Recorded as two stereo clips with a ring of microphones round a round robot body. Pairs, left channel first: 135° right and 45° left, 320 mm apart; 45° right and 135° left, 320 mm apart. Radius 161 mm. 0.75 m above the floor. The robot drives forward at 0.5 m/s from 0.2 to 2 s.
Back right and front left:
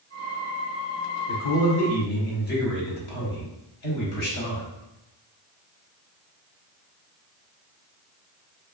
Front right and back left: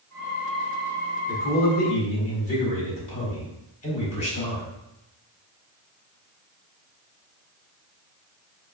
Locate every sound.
1.3 s a man speaking: 105° right, 1.7 m; by 4.7 s 115° right, 1.8 m